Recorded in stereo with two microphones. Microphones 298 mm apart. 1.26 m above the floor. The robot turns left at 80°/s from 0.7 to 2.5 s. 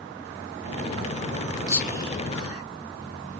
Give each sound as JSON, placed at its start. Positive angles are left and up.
{"t": 1.7, "sound": "whispering", "side_deg": 15, "distance_m": 1.5}